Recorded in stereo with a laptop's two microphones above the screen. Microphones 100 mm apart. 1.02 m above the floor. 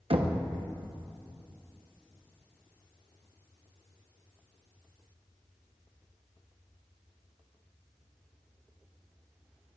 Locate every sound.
0.1 s knocking: 70° right (ahead or behind), 0.9 m